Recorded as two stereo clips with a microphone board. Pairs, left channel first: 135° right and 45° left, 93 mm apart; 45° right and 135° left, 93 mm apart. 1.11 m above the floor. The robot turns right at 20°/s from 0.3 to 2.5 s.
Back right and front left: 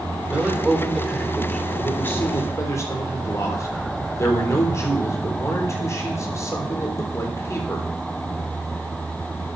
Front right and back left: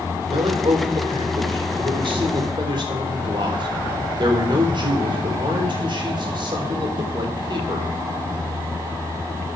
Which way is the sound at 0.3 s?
125° left.